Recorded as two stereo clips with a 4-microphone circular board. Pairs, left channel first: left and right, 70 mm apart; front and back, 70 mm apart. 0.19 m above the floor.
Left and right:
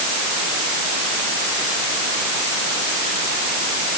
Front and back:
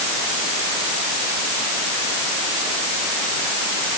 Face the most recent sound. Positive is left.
No sound to turn to.